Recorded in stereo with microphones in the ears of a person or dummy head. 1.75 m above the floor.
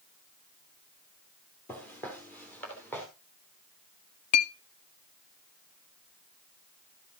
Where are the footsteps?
10° left (ahead or behind), 2 m.